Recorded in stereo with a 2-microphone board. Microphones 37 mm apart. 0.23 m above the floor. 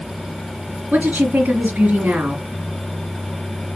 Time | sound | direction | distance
0.9 | a woman speaking | 50° right (ahead or behind) | 2.5 m